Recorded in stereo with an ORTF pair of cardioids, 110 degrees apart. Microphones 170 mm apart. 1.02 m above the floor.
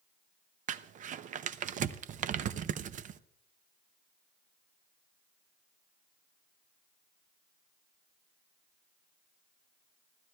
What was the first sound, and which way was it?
Crumpling, 50° right.